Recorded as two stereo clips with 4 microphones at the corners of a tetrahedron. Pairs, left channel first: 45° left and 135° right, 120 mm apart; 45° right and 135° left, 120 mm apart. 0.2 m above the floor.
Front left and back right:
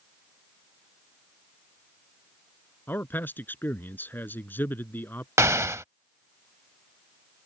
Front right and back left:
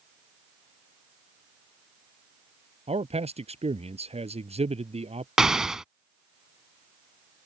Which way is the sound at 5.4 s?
150° right.